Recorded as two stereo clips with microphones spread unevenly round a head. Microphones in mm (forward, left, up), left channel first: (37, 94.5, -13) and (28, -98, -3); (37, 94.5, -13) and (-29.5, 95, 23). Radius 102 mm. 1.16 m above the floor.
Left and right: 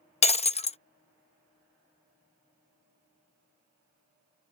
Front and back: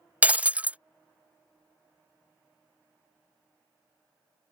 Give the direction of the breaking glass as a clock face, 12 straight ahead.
7 o'clock.